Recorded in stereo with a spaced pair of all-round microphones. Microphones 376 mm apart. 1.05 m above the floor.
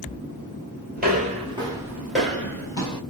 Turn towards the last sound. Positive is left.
turn(degrees=15)  # may be behind; listen again after turning